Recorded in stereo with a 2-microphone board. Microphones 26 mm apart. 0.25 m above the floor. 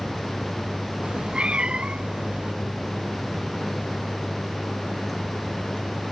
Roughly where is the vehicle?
Left.